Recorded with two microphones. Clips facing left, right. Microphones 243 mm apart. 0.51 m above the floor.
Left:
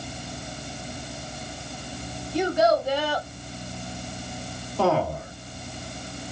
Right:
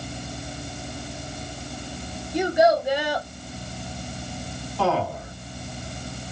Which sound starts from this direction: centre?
A child speaking, at 2.3 s.